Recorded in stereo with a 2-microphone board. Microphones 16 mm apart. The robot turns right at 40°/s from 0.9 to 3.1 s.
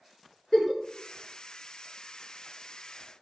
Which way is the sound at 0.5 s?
30° left (ahead or behind).